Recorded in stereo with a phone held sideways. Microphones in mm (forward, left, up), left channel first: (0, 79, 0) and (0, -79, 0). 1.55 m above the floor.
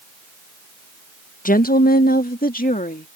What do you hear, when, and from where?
1.4 s a woman speaking: 55° left (ahead or behind); by 3.1 s 60° left (ahead or behind)